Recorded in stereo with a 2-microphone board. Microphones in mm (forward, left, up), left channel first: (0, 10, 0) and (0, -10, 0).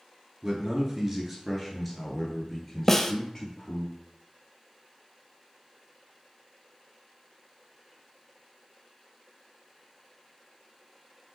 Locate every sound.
0.4 s a man speaking: 35° right (ahead or behind), 1.4 m; by 3.9 s 25° left (ahead or behind), 2 m
2.9 s a snare drum: 15° left (ahead or behind), 0.5 m